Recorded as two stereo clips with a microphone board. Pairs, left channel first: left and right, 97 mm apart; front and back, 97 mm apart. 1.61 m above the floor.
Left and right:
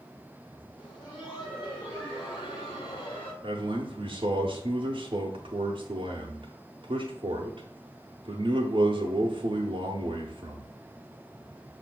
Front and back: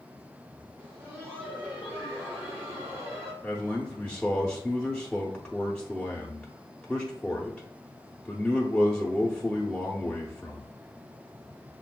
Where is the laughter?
120° left, 2.5 m.